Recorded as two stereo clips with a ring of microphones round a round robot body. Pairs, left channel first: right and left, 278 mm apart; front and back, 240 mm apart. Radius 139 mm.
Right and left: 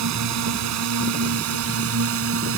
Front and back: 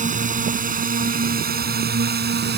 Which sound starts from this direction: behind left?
A drone, at 0.0 s.